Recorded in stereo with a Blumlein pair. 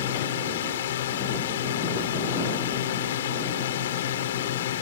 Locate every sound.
0.0 s a drone: 60° left